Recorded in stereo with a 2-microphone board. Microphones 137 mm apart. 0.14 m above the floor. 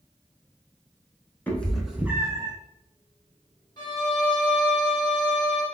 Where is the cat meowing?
10° left (ahead or behind), 0.7 m; by 2.5 s 35° right (ahead or behind), 0.6 m.